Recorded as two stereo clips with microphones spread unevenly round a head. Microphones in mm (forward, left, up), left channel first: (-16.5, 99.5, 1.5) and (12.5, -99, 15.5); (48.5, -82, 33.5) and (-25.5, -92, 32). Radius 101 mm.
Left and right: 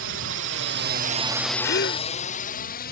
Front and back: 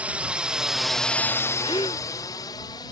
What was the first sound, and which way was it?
A drone, 100° right.